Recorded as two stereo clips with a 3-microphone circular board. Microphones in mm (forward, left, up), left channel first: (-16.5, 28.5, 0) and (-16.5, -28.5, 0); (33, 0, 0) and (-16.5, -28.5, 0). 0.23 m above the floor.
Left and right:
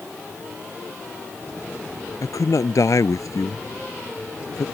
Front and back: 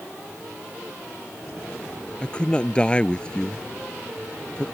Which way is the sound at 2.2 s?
100° left.